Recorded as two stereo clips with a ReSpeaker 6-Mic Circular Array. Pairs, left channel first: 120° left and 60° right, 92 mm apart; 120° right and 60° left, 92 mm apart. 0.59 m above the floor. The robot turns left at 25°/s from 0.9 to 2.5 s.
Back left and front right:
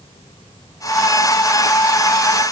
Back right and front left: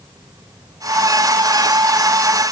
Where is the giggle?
No giggle in this recording.